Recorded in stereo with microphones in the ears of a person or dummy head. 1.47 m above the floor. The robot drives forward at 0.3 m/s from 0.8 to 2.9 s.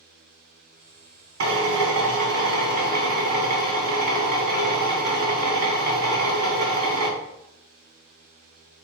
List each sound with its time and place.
1.4 s a drill: 65° right (ahead or behind), 1.3 m; by 7.1 s 50° right (ahead or behind), 1.5 m